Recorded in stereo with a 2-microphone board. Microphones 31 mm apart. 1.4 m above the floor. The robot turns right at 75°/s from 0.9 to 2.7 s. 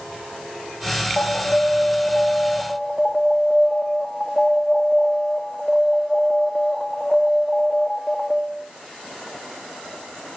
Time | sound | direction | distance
1.2 | an alarm | 55° left | 2 m